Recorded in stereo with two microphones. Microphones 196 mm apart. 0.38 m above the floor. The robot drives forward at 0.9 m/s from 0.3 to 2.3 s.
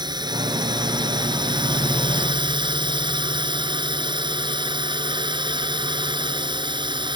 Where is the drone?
20° right (ahead or behind); by 7.2 s 25° right (ahead or behind).